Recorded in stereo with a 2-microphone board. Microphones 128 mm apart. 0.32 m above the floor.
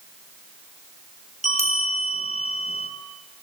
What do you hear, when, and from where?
1.4 s a bell: 60° left (ahead or behind), 2.5 m